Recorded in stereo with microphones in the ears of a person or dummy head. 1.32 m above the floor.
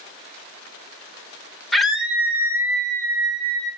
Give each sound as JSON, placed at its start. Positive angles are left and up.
{"t": 1.7, "sound": "a scream", "side_deg": 0, "distance_m": 1.7}